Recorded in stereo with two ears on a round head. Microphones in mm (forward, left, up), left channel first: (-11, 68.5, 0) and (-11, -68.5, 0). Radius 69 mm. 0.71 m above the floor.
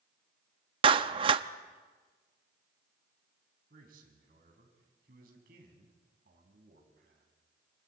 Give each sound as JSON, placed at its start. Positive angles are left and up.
{"t": 0.8, "sound": "a clap", "side_deg": -35, "distance_m": 0.6}
{"t": 3.7, "sound": "a man speaking", "side_deg": -65, "distance_m": 4.5}